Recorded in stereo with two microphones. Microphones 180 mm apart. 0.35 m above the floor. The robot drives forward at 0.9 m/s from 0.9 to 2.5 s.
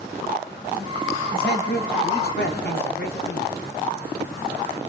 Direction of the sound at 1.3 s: 60° left (ahead or behind).